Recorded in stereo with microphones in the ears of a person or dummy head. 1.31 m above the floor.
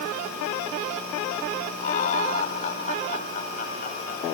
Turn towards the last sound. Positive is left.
turn(degrees=50)  # may be behind; listen again after turning